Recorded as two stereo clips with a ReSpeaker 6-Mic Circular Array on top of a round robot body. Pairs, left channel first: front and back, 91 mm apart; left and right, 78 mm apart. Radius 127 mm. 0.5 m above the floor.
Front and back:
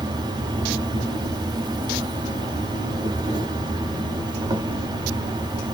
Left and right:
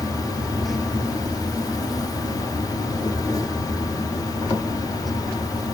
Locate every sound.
0.0 s an insect: 135° left, 0.8 m